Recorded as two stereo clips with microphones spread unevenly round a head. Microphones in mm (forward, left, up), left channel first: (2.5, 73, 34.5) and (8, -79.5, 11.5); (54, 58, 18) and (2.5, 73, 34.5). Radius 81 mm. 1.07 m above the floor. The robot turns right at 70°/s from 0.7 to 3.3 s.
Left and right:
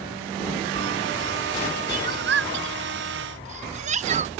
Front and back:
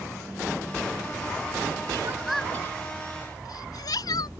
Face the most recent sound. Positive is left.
turn(degrees=-40)